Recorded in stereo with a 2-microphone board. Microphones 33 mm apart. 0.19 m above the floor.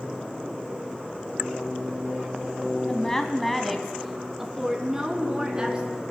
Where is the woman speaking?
20° left (ahead or behind), 1.2 m; by 6.0 s 25° right (ahead or behind), 2 m.